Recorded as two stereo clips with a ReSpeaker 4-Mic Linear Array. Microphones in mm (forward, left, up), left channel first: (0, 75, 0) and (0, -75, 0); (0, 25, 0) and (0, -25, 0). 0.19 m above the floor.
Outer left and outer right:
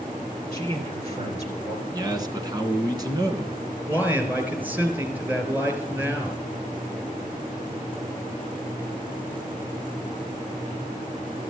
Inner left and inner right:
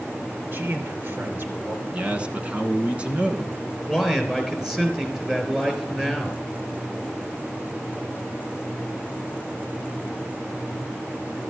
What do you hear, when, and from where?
0.5 s a man speaking: 45° right (ahead or behind), 3.5 m
1.9 s a man speaking: 25° right (ahead or behind), 1.6 m
3.9 s a man speaking: 15° right (ahead or behind), 3 m